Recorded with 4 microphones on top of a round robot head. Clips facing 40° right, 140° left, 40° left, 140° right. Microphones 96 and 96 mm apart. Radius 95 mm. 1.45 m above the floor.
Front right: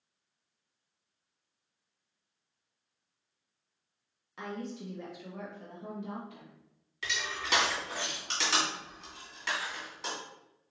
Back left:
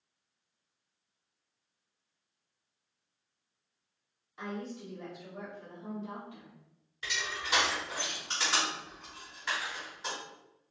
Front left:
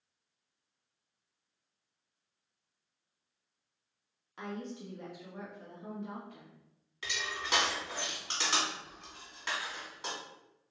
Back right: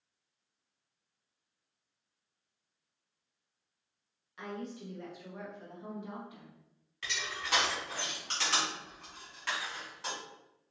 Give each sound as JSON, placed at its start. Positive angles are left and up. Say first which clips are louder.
{"t": 4.4, "sound": "a woman speaking", "louder": "even, even", "azimuth_deg": -15, "distance_m": 1.0}
{"t": 7.0, "sound": "crushing", "louder": "front right 1 dB, front left 1 dB", "azimuth_deg": -35, "distance_m": 1.9}